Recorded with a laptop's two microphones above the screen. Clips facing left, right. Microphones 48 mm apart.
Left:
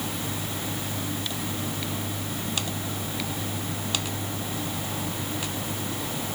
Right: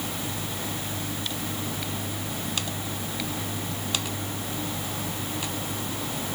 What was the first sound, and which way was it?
Only background noise.